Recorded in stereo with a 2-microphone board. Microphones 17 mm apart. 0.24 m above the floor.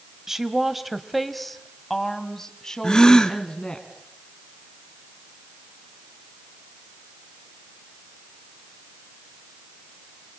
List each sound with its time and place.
0.3 s a woman speaking: 20° right (ahead or behind), 1.3 m; by 3.8 s 45° left (ahead or behind), 2.5 m
2.8 s a gasp: 45° left (ahead or behind), 1.4 m